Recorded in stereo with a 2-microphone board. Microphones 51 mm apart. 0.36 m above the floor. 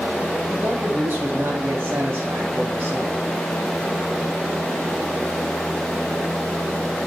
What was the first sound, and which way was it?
A man speaking, 60° right (ahead or behind).